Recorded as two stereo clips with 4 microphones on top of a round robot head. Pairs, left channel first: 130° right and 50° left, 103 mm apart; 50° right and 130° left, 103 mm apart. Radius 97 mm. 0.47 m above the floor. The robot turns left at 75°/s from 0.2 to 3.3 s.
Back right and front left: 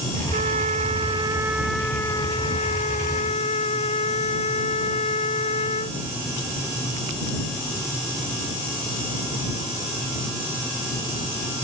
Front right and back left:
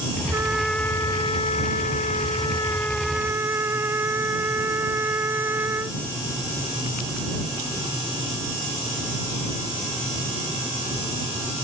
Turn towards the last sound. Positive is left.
turn(degrees=-160)